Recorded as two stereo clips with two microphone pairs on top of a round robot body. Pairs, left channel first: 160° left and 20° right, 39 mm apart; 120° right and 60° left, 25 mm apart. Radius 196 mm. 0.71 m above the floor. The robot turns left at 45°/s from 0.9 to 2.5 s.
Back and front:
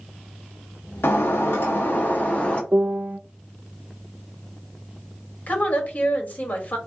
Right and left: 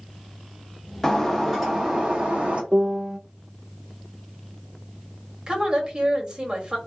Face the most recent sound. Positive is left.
turn(degrees=120)